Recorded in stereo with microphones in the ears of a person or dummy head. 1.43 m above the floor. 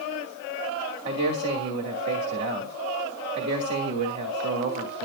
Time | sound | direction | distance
1.1 | a man speaking | 60° right (ahead or behind) | 2.5 m